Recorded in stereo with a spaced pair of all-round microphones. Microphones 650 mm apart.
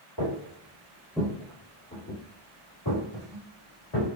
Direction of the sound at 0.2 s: 30° right (ahead or behind).